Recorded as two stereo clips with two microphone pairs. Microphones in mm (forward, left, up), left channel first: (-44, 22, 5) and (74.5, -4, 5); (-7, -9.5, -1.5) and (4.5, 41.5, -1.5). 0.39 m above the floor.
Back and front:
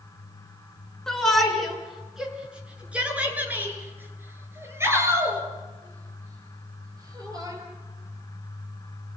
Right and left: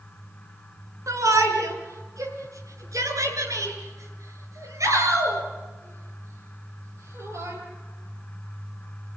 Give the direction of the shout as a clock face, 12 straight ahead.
9 o'clock.